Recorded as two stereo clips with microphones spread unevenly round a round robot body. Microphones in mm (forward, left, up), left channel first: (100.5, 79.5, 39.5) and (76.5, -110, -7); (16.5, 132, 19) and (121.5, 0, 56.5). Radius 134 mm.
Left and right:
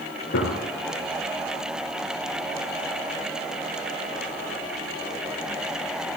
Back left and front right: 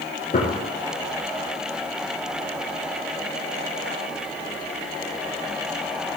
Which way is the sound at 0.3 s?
90° left.